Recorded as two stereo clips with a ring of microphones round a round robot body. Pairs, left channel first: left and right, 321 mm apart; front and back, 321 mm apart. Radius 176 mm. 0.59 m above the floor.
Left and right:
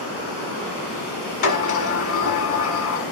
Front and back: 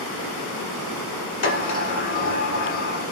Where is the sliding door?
60° left, 1.0 m.